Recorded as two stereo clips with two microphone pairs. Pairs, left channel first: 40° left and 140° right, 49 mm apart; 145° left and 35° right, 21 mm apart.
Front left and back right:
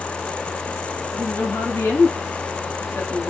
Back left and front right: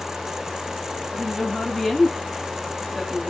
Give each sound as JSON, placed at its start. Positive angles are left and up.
{"t": 1.1, "sound": "a woman speaking", "azimuth_deg": 60, "distance_m": 8.0}